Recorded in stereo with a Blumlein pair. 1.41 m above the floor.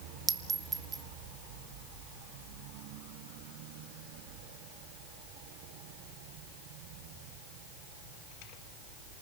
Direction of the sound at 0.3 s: 20° right.